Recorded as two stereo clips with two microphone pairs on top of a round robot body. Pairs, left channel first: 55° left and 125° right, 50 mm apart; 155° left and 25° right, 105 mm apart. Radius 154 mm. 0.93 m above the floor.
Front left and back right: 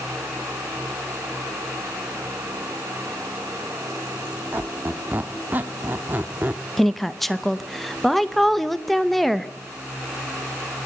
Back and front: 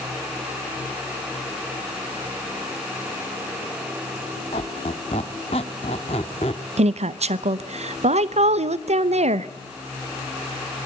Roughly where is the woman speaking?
Ahead right.